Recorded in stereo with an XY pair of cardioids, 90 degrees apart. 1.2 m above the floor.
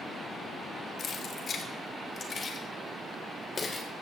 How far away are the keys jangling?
About 2 m.